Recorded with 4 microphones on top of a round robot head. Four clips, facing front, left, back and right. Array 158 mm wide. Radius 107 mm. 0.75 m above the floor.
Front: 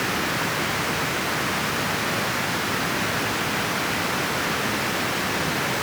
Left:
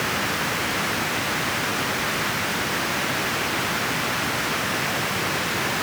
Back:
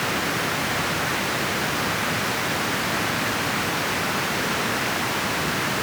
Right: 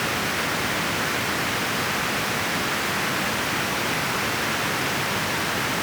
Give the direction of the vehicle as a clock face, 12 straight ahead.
I don't hear a vehicle.